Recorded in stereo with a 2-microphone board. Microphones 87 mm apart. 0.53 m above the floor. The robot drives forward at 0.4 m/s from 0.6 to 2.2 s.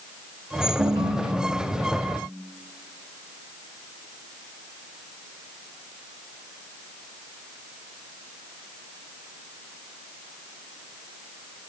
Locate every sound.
0.8 s a ringtone: 85° right, 4 m; by 2.2 s 80° right, 4 m